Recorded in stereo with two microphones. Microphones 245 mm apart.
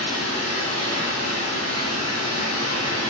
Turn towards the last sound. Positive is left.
turn(degrees=-85)